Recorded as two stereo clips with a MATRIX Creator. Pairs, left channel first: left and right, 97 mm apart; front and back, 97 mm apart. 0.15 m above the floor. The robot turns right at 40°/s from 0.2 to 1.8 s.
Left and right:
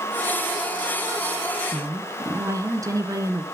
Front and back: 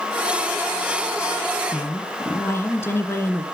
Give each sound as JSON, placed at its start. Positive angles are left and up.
{"t": 1.7, "sound": "a woman speaking", "azimuth_deg": -55, "distance_m": 1.4}